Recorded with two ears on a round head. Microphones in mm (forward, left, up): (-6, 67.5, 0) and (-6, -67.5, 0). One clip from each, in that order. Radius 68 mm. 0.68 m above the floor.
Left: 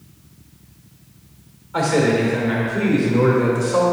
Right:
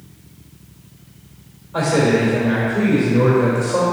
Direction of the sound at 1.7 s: 35° left (ahead or behind).